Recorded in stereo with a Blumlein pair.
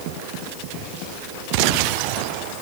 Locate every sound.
Only background noise.